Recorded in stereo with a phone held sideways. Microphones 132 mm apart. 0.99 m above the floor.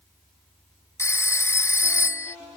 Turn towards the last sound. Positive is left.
turn(degrees=20)  # may be behind; listen again after turning